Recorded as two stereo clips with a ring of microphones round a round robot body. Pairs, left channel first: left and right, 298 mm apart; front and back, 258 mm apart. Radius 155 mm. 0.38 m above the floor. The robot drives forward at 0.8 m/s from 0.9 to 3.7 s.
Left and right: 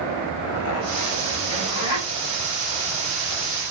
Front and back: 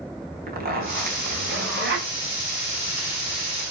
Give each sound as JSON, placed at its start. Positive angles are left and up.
{"t": 0.5, "sound": "a zipper", "azimuth_deg": 130, "distance_m": 4.5}